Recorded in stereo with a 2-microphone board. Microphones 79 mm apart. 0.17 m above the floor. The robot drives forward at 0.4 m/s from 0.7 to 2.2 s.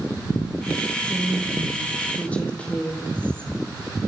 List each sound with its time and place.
1.0 s a woman speaking: 15° left (ahead or behind), 6.5 m